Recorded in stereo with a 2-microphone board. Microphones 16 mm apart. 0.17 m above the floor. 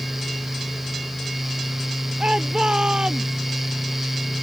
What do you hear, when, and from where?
2.2 s a shout: 65° right (ahead or behind); by 3.5 s 70° right (ahead or behind)